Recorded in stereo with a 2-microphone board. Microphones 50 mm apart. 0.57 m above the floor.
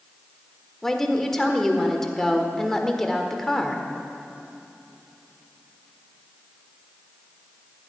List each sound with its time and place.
0.8 s a woman speaking: 5° left (ahead or behind), 1.3 m